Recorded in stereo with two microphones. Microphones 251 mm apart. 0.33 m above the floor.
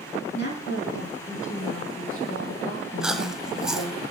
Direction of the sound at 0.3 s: 45° left (ahead or behind).